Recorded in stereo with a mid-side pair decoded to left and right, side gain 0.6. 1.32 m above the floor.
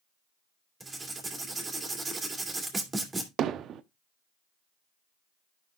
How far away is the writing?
About 2.5 m.